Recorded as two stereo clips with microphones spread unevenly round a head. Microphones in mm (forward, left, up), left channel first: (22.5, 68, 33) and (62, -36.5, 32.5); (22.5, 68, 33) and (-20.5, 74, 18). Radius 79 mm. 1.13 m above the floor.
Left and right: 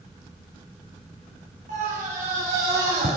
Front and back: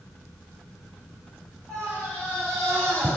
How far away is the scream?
About 5 m.